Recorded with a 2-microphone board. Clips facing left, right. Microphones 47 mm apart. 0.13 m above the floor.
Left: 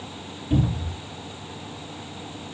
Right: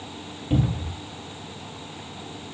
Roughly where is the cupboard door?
Right.